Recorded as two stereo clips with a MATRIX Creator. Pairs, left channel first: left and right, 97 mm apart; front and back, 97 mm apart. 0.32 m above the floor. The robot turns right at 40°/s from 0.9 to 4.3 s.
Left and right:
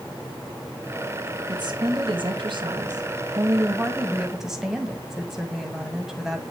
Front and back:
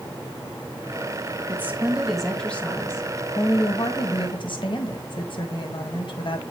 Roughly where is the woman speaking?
Behind right.